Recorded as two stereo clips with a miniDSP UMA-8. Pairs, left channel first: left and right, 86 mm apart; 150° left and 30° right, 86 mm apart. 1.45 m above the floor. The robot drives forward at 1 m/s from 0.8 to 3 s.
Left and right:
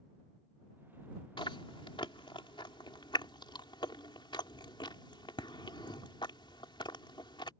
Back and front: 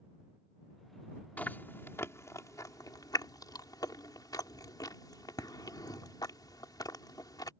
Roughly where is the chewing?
Left.